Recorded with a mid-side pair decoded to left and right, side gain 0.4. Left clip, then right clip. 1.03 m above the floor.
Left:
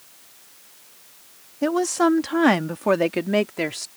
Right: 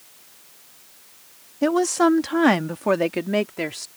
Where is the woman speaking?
20° right; by 3.9 s 20° left.